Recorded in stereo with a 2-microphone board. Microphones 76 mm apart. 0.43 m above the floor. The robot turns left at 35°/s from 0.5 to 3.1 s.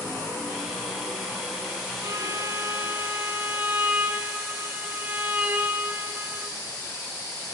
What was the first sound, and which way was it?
A violin, 120° right.